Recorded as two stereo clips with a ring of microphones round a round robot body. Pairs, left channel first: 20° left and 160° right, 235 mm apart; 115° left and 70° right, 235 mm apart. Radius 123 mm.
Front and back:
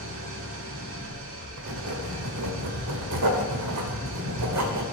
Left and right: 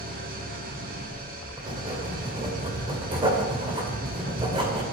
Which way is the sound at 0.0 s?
120° right.